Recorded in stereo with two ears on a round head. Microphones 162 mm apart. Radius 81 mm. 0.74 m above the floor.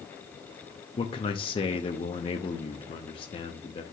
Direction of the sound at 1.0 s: 30° left (ahead or behind).